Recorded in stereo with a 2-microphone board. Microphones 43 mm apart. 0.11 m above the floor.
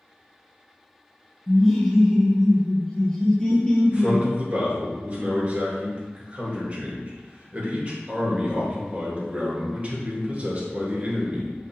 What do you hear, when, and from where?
1.5 s laughter: centre (ahead or behind), 1.1 m; by 4.2 s 10° left (ahead or behind), 2 m
3.9 s a man speaking: 30° right (ahead or behind), 1.9 m